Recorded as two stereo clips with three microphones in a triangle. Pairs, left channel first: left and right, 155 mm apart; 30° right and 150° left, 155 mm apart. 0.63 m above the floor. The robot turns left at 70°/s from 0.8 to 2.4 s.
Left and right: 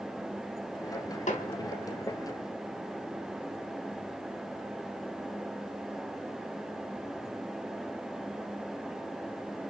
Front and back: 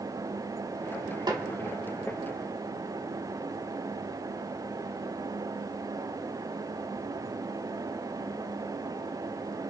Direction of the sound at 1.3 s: 95° left.